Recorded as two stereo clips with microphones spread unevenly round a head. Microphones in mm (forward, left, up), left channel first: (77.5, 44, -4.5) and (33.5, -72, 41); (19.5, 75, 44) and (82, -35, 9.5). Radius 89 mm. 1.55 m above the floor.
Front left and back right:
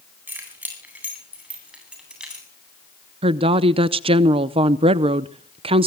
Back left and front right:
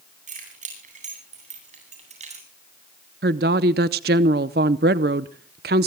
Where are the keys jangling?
35° right, 10 m; by 2.5 s 30° right, 9.5 m.